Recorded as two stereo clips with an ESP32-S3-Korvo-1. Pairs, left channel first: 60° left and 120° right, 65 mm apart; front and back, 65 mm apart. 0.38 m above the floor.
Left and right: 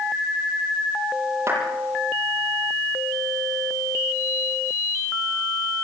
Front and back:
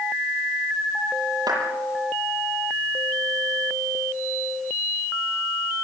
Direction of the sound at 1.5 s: 170° right.